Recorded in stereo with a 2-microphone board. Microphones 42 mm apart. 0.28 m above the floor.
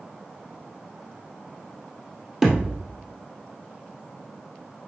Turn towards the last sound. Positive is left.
turn(degrees=-10)  # may be behind; listen again after turning